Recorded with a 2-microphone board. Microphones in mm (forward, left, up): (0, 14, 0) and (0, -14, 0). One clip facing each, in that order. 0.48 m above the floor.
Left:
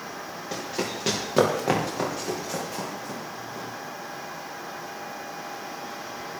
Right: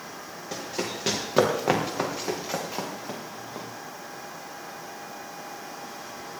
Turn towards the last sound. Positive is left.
turn(degrees=-40)  # may be behind; listen again after turning